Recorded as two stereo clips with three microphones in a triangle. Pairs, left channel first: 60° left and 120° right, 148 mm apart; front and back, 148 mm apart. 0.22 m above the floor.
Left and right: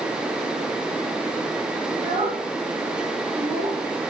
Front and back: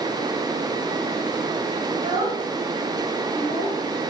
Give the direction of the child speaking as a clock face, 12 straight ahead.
4 o'clock.